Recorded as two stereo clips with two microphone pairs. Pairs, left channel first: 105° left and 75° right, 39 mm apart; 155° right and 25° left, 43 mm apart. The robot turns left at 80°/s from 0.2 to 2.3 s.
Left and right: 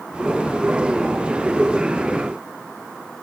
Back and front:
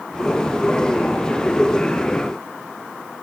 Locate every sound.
Only background noise.